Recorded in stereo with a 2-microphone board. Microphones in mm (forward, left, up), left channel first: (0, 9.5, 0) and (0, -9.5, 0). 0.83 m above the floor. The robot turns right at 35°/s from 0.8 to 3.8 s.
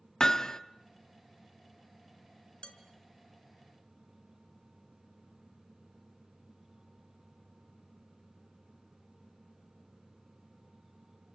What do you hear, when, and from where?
0.2 s hammering: 35° left (ahead or behind), 1.1 m
2.6 s dishes clattering: 75° left (ahead or behind), 3 m; by 2.8 s 80° left, 3 m